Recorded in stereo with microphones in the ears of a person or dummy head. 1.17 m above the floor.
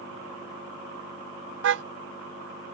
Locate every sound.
1.6 s a car horn: 75° right (ahead or behind)